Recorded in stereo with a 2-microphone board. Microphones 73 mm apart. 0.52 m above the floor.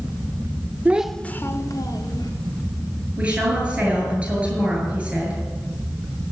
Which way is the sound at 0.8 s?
25° right (ahead or behind).